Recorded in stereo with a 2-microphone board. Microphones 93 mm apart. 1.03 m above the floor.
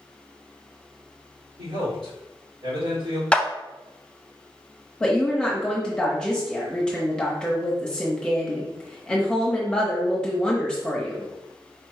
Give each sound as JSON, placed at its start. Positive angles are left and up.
{"t": 1.6, "sound": "a man speaking", "side_deg": -80, "distance_m": 2.0}
{"t": 3.3, "sound": "a clap", "side_deg": 10, "distance_m": 0.5}
{"t": 5.0, "sound": "a woman speaking", "side_deg": 10, "distance_m": 1.0}